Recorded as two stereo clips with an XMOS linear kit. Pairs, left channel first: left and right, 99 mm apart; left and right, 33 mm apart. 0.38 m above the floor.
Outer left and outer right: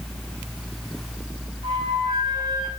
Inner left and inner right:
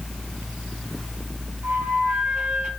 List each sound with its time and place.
1.6 s a flute: 65° right (ahead or behind), 1.2 m